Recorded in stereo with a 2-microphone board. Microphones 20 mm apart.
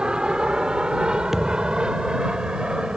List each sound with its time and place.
0.0 s an aircraft: 55° right (ahead or behind); by 3.0 s 50° right (ahead or behind)
1.3 s a thud: 20° right (ahead or behind)